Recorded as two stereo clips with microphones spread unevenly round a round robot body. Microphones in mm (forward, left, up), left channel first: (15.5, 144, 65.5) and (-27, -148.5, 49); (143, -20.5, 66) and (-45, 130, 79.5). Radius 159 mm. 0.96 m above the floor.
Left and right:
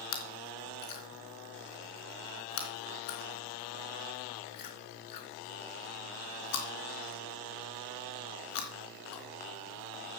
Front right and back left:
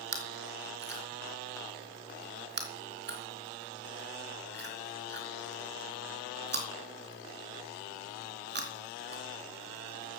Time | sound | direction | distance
0.1 | chewing | 95° left | 3.5 m